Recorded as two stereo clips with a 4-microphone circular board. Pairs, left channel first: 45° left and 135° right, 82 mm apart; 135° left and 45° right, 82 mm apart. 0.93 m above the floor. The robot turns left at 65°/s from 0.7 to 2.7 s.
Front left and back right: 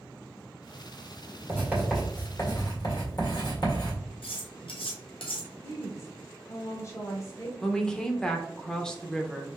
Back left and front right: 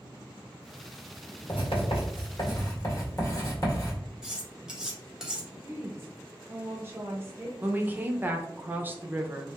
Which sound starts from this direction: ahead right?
A woman speaking, at 7.6 s.